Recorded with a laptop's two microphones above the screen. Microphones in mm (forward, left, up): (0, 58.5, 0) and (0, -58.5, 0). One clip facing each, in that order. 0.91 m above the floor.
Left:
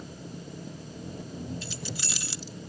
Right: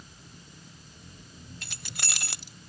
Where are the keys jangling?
55° right (ahead or behind).